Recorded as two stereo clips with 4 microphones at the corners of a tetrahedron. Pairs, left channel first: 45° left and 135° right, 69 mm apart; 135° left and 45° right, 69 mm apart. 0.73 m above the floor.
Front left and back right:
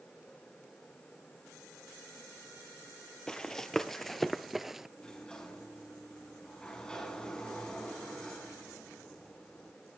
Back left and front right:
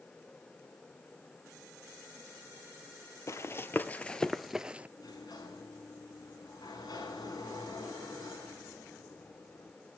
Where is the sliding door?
125° left, 5.5 m.